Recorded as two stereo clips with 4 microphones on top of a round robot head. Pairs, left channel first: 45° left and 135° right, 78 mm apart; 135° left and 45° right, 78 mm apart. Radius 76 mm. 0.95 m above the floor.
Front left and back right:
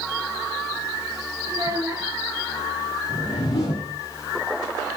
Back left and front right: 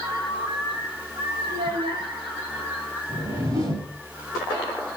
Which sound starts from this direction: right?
A child speaking, at 1.5 s.